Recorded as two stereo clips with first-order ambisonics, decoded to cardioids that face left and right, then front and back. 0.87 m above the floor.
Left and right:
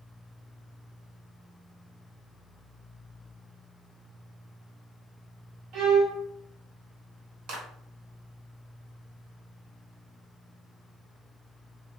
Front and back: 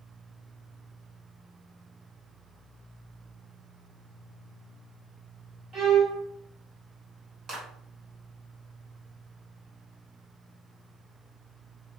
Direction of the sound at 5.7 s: 125° right.